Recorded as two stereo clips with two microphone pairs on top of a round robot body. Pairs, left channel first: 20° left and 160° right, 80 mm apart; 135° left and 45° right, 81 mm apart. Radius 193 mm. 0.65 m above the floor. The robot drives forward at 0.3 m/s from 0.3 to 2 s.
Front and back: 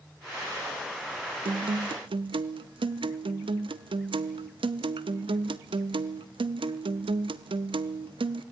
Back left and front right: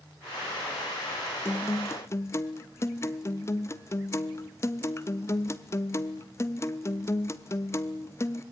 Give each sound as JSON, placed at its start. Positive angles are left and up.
{"t": 1.4, "sound": "a guitar", "azimuth_deg": -165, "distance_m": 0.5}